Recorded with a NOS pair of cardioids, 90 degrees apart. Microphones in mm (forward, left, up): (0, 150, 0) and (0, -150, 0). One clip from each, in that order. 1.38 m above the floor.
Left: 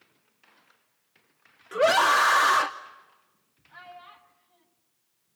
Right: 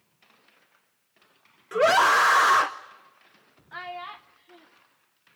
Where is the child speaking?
65° right, 0.8 m.